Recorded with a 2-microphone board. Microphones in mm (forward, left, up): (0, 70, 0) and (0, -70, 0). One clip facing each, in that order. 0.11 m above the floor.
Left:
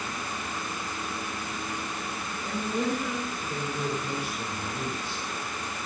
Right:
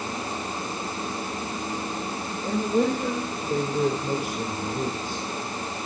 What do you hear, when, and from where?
2.4 s a woman speaking: 50° right (ahead or behind), 4.5 m